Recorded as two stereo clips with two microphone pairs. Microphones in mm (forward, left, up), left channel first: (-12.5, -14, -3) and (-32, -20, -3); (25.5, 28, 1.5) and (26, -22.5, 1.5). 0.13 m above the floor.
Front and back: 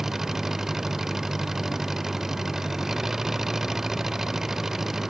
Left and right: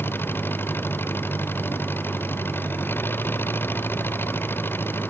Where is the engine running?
135° left.